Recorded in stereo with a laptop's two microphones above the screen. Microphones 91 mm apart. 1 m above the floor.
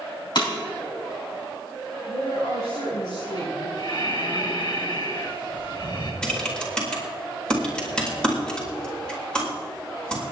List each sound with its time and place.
0.3 s breaking glass: 55° left (ahead or behind), 4 m
2.1 s a woman speaking: 50° left (ahead or behind), 6 m
3.8 s breathing: 55° left (ahead or behind), 3 m
6.2 s typing on a keyboard: 10° left (ahead or behind), 4.5 m